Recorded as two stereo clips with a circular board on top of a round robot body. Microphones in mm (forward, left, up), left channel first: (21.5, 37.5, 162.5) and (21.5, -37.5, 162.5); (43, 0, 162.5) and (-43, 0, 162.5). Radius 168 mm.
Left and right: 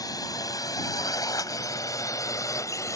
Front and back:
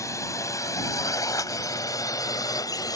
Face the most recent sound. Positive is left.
turn(degrees=45)